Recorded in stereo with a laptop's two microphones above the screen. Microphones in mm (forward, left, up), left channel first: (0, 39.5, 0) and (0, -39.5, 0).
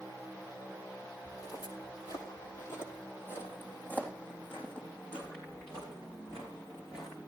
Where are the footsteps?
55° left (ahead or behind), 2 m; by 7.3 s 5° left (ahead or behind), 5 m.